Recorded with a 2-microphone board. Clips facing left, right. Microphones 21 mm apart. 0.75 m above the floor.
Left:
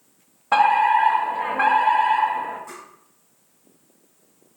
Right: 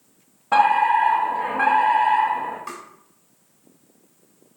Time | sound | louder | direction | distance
0.5 | a fire alarm | even | 20° left (ahead or behind) | 1.3 m
2.7 | tapping | right 4 dB | 80° right | 3 m